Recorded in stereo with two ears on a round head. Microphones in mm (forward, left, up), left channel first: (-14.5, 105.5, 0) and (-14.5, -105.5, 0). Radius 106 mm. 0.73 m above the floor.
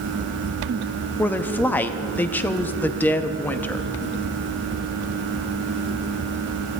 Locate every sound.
1.2 s a woman speaking: 10° left (ahead or behind), 0.5 m